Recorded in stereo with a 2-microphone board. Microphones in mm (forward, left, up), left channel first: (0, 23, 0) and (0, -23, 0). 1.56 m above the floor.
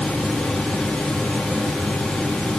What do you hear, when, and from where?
Only background noise.